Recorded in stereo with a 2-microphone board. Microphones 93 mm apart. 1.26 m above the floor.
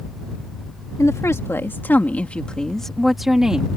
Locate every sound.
1.0 s a woman speaking: 35° left (ahead or behind); by 3.7 s 10° right (ahead or behind)